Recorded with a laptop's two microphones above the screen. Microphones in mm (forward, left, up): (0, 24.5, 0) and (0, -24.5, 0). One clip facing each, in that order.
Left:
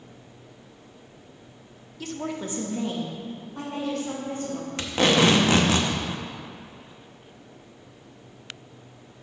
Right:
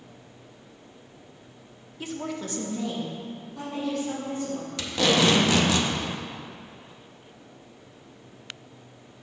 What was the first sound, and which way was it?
A woman speaking, 20° right (ahead or behind).